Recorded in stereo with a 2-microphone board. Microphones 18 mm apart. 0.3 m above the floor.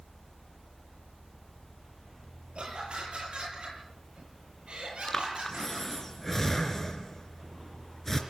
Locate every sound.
2.5 s laughter: 80° right, 9 m; by 5.9 s 75° right (ahead or behind), 10 m
5.1 s breathing: 20° left (ahead or behind), 3 m